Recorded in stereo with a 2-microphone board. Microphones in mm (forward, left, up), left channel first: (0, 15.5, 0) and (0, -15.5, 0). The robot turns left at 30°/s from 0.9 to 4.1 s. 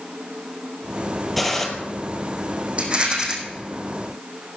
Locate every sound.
1.4 s a gunshot: 5° left (ahead or behind), 2.5 m; by 1.7 s 10° left (ahead or behind), 2.5 m
2.8 s a rattle: 35° right (ahead or behind), 3 m; by 3.3 s 20° right (ahead or behind), 3 m